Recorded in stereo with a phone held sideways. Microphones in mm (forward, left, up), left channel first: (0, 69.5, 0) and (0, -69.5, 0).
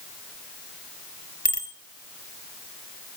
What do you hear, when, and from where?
1.4 s a bicycle bell: 80° left, 2.5 m